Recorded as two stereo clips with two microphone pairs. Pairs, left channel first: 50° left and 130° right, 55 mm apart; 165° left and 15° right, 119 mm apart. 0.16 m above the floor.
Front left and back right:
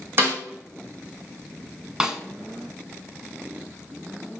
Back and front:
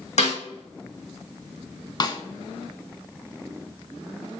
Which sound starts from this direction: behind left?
A snare drum, at 2.0 s.